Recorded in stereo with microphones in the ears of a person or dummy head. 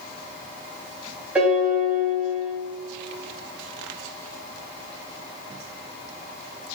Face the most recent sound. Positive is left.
turn(degrees=-5)  # may be behind; listen again after turning